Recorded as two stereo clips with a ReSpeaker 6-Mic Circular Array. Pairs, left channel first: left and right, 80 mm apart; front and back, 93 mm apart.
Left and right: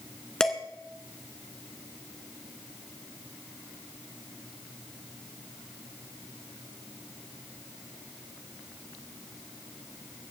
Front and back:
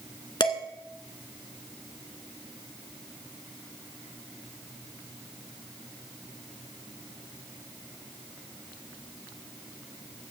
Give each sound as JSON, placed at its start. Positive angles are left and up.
{"t": 0.4, "sound": "dishes clattering", "azimuth_deg": 10, "distance_m": 1.7}